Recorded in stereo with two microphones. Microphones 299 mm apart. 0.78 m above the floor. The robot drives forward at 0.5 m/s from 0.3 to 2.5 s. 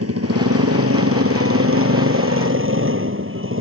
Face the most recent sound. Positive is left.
turn(degrees=-45)  # may be behind; listen again after turning